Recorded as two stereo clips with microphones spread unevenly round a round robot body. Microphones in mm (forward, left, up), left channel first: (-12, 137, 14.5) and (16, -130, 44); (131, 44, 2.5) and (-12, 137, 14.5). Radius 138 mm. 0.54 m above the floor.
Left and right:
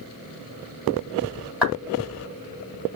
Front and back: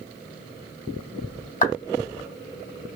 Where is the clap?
5° left, 3 m.